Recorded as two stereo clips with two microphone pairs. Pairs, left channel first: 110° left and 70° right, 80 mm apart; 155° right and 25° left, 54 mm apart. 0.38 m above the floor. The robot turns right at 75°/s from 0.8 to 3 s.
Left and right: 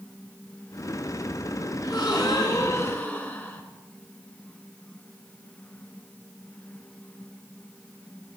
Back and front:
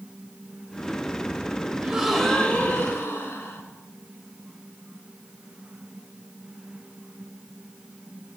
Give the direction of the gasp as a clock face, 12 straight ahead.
9 o'clock.